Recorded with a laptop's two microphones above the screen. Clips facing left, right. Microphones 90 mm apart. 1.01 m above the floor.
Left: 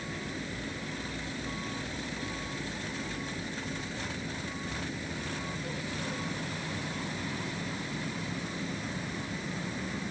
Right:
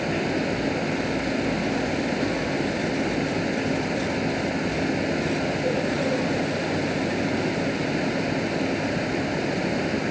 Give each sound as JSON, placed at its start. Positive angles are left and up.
{"t": 0.0, "sound": "a fan", "side_deg": -85}